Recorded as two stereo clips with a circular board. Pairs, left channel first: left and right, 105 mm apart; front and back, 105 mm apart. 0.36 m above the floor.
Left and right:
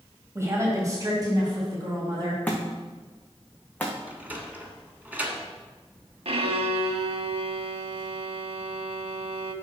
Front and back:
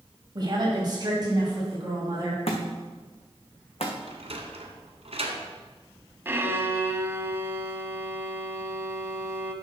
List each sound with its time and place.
0.3 s a woman speaking: 145° right, 2 m; by 2.4 s 130° right, 3.5 m
2.5 s a thud: 15° left, 1.9 m
4.1 s a sliding door: 165° right, 1.6 m
6.2 s a violin: 110° right, 0.7 m